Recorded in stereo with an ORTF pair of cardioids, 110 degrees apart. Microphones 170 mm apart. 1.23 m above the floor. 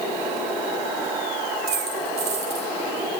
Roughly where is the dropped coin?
Ahead right.